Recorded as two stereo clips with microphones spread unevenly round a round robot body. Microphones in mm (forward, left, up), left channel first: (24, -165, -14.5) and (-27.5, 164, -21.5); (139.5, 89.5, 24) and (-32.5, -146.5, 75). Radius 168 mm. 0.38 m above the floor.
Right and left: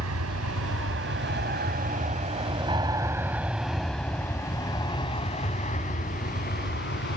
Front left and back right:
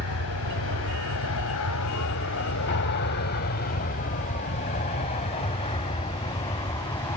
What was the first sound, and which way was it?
An aircraft, 60° left.